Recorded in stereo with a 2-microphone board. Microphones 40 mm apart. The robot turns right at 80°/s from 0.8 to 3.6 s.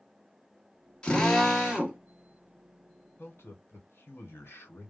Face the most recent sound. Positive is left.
turn(degrees=90)